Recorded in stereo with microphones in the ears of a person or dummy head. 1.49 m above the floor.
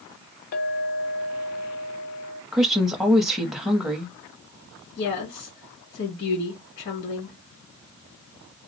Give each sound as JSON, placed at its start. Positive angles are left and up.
{"t": 0.5, "sound": "a clink", "side_deg": 45, "distance_m": 1.1}
{"t": 2.5, "sound": "a woman speaking", "side_deg": 0, "distance_m": 0.7}
{"t": 5.0, "sound": "a woman speaking", "side_deg": 50, "distance_m": 2.0}